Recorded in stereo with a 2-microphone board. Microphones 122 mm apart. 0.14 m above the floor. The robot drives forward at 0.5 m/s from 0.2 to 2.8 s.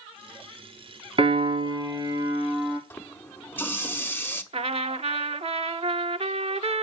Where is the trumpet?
60° right (ahead or behind), 0.6 m.